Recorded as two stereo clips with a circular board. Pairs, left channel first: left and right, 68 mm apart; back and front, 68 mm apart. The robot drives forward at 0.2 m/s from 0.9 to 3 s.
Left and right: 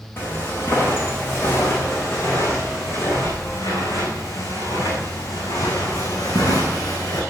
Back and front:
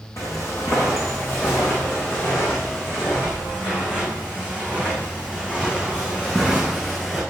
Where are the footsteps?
145° left, 5 m; by 7.2 s 105° left, 5.5 m.